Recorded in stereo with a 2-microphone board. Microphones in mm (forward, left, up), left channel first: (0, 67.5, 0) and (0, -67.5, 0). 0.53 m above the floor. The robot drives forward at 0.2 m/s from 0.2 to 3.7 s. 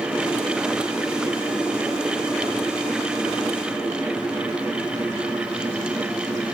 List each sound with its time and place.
Only background noise.